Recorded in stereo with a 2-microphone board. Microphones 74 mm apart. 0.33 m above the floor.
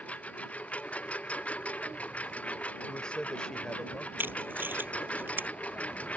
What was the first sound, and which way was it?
A lawn mower, 20° left (ahead or behind).